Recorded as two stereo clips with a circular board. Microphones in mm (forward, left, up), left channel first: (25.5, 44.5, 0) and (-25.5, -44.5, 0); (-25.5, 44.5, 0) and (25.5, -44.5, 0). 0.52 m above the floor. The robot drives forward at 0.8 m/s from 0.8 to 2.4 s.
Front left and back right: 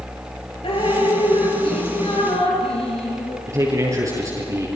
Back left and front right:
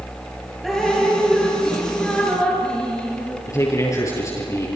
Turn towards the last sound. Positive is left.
turn(degrees=180)